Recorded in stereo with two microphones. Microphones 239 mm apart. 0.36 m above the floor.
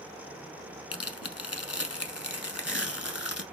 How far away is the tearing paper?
About 0.8 m.